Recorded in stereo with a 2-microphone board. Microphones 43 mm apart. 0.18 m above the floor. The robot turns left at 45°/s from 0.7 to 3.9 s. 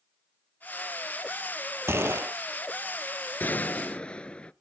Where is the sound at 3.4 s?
45° left (ahead or behind), 0.7 m; by 4.5 s 25° left (ahead or behind), 0.7 m.